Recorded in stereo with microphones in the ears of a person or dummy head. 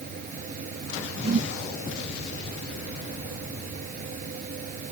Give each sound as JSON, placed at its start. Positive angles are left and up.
{"t": 0.0, "sound": "a fan", "side_deg": -45}
{"t": 1.2, "sound": "a whoosh", "side_deg": -40}